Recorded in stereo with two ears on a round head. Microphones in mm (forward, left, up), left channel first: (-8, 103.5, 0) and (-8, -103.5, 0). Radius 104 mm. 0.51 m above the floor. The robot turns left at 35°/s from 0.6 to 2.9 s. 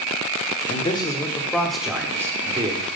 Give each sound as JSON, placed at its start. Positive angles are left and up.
{"t": 0.7, "sound": "a man speaking", "azimuth_deg": 35, "distance_m": 1.3}